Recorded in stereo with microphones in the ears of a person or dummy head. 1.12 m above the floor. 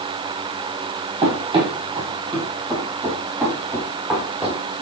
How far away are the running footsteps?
About 1.9 m.